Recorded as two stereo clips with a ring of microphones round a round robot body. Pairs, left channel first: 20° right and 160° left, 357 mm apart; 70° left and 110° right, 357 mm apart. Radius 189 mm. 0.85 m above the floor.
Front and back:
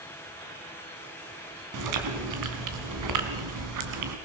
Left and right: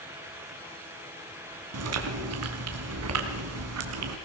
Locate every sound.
1.7 s chewing: 160° right, 2.0 m